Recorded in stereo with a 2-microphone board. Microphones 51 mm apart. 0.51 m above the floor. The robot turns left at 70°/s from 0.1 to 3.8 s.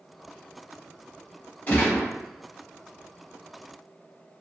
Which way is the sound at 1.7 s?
35° left (ahead or behind).